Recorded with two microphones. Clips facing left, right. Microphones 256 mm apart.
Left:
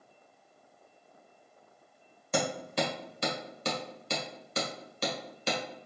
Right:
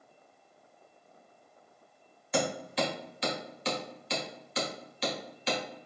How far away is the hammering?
About 1.5 m.